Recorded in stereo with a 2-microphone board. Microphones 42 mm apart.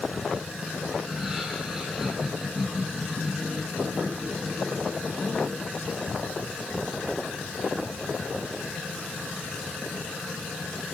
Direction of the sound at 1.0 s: 10° right (ahead or behind).